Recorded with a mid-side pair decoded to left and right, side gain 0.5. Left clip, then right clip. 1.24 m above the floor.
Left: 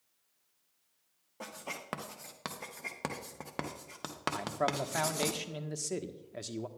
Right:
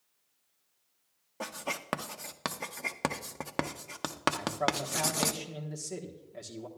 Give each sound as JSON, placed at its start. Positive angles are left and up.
{"t": 1.4, "sound": "writing", "azimuth_deg": -35, "distance_m": 0.7}
{"t": 4.3, "sound": "a man speaking", "azimuth_deg": 40, "distance_m": 1.2}